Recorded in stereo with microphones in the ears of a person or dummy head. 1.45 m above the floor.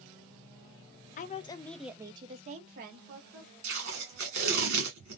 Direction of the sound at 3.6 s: 50° right (ahead or behind).